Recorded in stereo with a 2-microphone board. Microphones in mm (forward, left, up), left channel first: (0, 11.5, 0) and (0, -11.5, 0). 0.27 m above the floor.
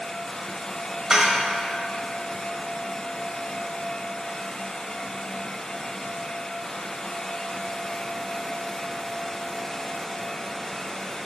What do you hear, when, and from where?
1.1 s dishes clattering: 30° right (ahead or behind), 0.7 m